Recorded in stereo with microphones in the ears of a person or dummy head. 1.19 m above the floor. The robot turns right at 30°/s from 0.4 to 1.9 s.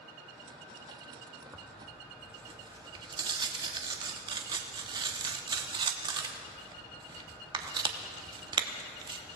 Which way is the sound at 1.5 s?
15° right (ahead or behind).